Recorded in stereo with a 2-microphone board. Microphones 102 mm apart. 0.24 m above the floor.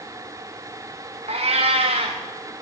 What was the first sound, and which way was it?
A cat meowing, 85° right.